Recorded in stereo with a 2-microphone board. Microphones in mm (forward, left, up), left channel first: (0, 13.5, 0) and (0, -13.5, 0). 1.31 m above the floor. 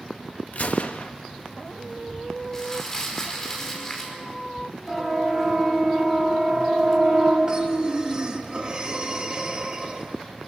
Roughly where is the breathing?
Right.